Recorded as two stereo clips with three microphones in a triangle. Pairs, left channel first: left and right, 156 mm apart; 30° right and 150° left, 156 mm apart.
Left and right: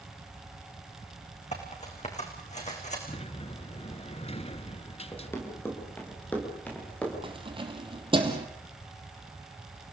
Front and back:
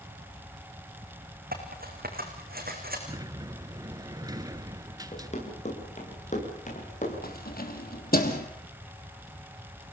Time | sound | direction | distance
1.5 | cutlery clinking | 135° left | 5 m
3.1 | a sliding door | 100° left | 0.9 m
5.1 | running footsteps | 15° left | 7.5 m
7.2 | keys jangling | 35° right | 2.5 m